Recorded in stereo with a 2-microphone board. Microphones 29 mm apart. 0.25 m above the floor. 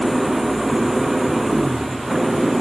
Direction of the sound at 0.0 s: 5° right (ahead or behind).